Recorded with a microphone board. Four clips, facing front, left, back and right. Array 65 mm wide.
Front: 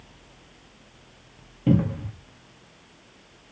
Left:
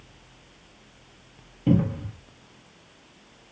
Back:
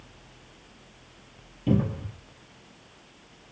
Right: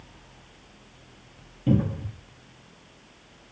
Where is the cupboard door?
25° left, 1.3 m.